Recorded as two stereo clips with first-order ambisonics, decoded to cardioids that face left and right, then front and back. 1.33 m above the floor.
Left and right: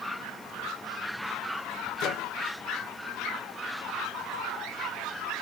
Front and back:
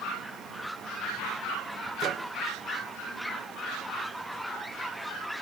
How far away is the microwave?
About 0.5 m.